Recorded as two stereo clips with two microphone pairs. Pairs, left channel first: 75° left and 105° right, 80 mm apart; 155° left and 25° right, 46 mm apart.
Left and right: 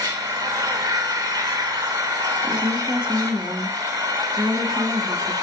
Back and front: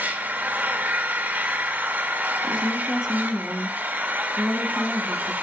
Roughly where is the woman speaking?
Ahead right.